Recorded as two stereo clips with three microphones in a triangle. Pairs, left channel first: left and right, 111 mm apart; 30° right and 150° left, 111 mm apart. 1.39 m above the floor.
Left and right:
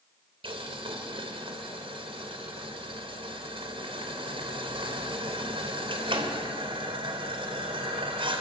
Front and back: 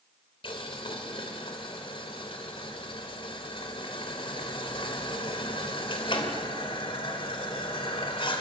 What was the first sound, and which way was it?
Boiling, 65° right.